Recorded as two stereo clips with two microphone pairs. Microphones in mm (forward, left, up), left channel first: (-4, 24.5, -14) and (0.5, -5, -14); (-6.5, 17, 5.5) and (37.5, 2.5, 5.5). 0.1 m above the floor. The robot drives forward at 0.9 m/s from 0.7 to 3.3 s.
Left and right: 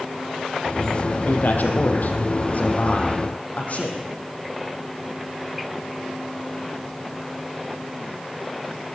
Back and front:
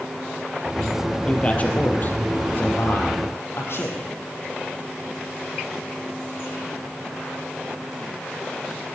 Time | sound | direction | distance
1.3 | a man speaking | 100° left | 2.5 m